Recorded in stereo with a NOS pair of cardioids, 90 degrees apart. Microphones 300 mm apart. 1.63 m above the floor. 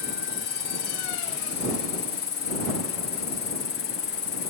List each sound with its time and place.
0.0 s an insect: 45° left